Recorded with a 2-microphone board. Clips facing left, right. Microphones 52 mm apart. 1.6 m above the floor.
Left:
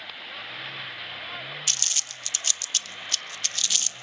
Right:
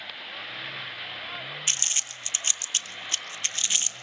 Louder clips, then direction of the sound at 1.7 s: Right 1 dB; 25° right (ahead or behind).